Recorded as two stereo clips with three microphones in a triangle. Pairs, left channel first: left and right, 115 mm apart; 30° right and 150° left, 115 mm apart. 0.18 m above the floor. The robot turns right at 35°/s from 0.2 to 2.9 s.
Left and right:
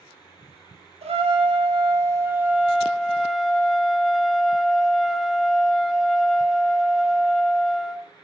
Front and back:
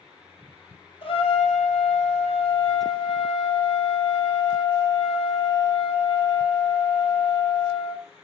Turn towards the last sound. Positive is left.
turn(degrees=0)